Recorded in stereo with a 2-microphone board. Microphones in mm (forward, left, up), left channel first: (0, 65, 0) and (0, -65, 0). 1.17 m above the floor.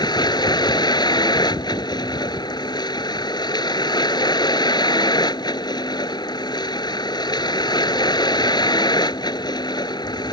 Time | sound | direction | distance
0.0 | a vehicle | 35° left (ahead or behind) | ?